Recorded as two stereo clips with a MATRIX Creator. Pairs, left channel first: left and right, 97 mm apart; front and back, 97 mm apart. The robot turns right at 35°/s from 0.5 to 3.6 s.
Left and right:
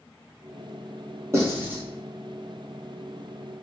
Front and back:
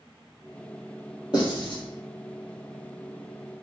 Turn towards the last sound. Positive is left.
turn(degrees=45)